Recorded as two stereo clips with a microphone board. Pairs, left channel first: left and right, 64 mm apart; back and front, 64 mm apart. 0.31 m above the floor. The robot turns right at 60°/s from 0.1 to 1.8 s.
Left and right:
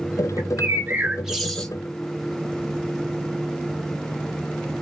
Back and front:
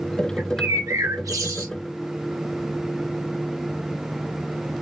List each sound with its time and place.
0.4 s a bird: 60° right, 1.3 m; by 1.7 s 20° left, 1.3 m